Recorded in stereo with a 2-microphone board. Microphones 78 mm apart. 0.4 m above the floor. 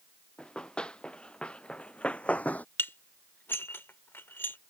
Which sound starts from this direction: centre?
Running footsteps, at 0.4 s.